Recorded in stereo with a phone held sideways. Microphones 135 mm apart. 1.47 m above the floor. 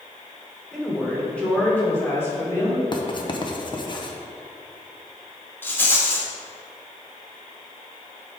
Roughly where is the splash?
I don't hear a splash.